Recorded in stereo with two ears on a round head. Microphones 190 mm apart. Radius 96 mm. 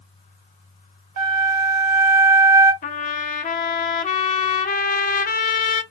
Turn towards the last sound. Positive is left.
turn(degrees=35)  # may be behind; listen again after turning